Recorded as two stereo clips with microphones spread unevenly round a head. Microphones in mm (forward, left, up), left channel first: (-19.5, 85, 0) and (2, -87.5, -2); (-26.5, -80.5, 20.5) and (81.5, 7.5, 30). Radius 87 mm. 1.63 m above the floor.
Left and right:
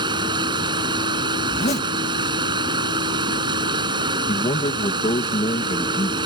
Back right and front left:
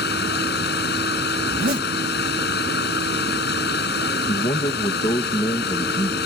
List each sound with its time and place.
0.0 s running water: 150° right
1.5 s a zipper: 50° left
4.3 s a man speaking: 155° left